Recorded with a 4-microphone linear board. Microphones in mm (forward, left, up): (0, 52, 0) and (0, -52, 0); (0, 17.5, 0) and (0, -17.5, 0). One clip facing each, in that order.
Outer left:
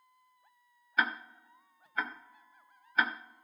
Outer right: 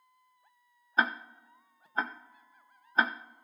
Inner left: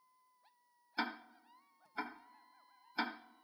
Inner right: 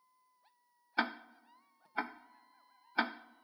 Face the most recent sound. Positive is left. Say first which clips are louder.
# outer right 2 dB, inner right 5 dB
turn(degrees=-30)  # may be behind; listen again after turning